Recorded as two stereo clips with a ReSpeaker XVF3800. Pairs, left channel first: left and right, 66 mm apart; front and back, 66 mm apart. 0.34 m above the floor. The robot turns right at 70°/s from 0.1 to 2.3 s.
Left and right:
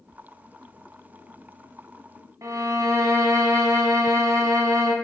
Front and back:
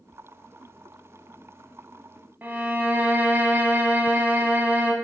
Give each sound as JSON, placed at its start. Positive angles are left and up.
{"t": 2.4, "sound": "a violin", "azimuth_deg": -120, "distance_m": 0.8}